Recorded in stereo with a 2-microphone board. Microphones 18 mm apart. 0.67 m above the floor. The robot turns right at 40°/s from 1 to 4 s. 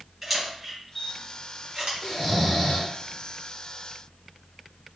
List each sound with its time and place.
0.2 s a camera shutter: 5° right (ahead or behind), 1.3 m; by 1.9 s 40° right (ahead or behind), 1.3 m
2.0 s snoring: 5° left (ahead or behind), 0.8 m; by 5.0 s 65° left (ahead or behind), 0.8 m